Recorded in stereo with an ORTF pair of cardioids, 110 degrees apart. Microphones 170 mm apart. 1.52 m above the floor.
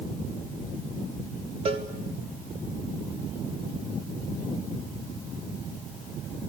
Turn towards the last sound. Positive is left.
turn(degrees=-35)